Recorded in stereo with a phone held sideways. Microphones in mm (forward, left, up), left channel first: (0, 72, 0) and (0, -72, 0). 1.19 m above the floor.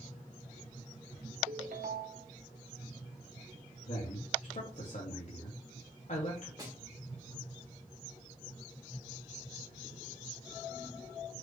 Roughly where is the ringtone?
Right.